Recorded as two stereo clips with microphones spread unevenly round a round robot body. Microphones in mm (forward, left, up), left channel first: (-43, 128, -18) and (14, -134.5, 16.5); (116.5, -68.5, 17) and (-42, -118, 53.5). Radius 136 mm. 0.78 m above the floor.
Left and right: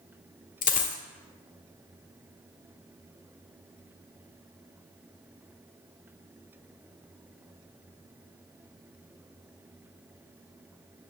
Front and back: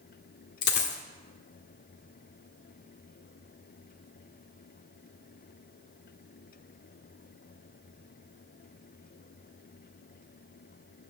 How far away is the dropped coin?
About 0.9 m.